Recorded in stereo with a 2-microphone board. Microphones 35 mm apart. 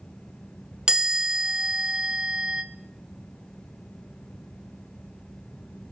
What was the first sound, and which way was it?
A chime, 25° right (ahead or behind).